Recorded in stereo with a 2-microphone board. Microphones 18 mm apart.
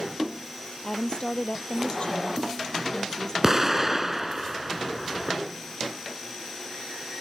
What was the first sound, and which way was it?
A woman speaking, 50° left (ahead or behind).